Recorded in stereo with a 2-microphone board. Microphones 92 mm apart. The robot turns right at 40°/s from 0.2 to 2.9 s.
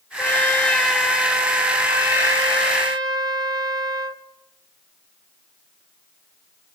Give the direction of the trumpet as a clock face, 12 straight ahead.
7 o'clock.